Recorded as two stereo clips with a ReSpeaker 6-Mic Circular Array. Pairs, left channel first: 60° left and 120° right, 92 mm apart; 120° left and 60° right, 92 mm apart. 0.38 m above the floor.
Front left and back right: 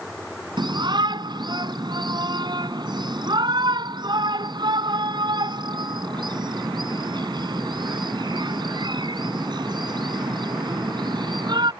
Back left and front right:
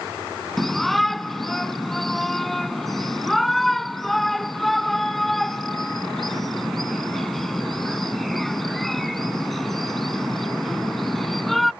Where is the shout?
155° right.